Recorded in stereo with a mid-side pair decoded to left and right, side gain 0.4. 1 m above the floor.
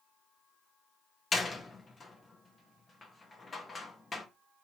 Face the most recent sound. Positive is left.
turn(degrees=40)